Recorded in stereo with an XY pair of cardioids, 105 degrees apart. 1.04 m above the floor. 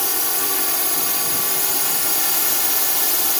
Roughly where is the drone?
Ahead.